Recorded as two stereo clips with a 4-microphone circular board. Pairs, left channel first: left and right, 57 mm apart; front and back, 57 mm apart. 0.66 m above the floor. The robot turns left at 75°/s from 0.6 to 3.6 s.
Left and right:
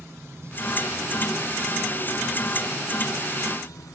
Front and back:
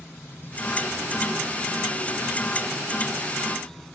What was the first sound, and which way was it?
Running water, 50° right.